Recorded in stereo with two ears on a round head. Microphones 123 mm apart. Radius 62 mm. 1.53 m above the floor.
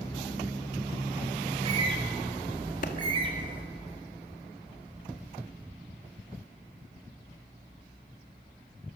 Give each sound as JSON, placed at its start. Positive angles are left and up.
{"t": 1.5, "sound": "a bird", "side_deg": -35, "distance_m": 3.5}
{"t": 2.8, "sound": "a clap", "side_deg": 60, "distance_m": 2.0}